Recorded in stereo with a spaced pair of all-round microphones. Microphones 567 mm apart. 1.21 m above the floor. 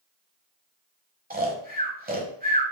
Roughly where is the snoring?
Centre.